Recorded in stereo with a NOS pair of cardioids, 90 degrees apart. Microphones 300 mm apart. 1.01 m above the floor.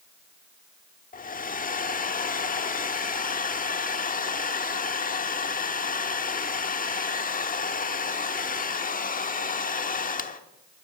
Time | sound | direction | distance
1.1 | a hair dryer | 25° left | 1.1 m